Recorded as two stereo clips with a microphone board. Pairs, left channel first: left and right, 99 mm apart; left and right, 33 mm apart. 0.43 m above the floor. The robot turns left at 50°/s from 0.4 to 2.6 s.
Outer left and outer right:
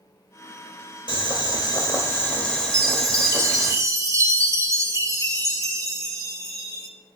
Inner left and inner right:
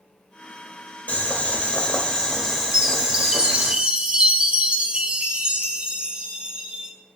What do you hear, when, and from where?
1.1 s boiling: 80° left, 1.4 m; by 3.7 s 5° left, 1.4 m
2.7 s a chime: 35° right (ahead or behind), 0.6 m